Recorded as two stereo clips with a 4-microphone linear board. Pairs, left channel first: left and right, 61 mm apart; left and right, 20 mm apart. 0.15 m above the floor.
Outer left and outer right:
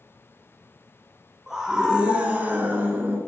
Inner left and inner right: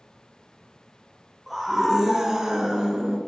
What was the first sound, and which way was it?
A scream, 10° right (ahead or behind).